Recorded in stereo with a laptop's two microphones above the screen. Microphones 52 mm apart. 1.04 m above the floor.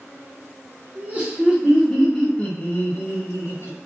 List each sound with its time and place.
0.9 s laughter: 35° right (ahead or behind), 1.1 m; by 3.8 s 60° left (ahead or behind), 1.4 m